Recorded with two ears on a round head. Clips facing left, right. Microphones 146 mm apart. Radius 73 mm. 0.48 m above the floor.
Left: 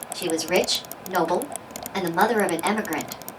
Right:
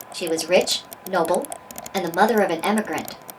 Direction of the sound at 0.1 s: 40° right (ahead or behind).